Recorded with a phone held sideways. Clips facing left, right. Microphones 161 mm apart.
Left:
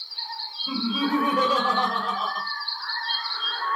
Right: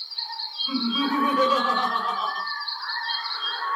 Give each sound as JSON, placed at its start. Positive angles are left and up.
{"t": 0.7, "sound": "laughter", "side_deg": 45, "distance_m": 0.9}